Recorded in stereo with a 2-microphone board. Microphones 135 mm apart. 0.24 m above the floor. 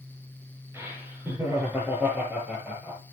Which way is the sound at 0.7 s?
20° right (ahead or behind).